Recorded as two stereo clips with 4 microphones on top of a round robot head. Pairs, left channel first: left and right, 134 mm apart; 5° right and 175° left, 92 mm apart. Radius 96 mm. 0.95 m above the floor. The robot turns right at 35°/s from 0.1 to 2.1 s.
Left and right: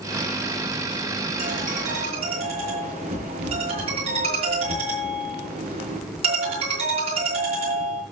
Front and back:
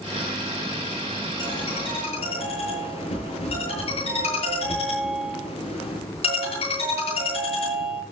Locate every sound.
1.4 s a ringtone: 65° right, 8 m; by 8.0 s 40° right, 8 m